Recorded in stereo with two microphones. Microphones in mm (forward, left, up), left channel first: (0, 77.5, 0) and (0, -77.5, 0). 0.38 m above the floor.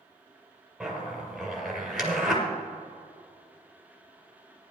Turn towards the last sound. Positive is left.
turn(degrees=0)  # may be behind; listen again after turning